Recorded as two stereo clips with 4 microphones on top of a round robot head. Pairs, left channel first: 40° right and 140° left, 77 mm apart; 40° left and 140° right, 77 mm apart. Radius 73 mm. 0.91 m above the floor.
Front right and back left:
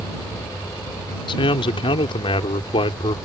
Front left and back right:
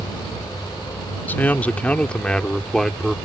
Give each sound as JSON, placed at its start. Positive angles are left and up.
{"t": 1.3, "sound": "a man speaking", "azimuth_deg": -30}